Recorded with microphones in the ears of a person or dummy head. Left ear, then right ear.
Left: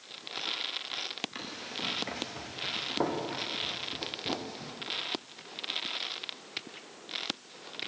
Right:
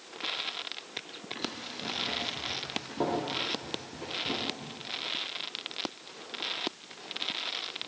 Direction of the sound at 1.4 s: 35° left (ahead or behind).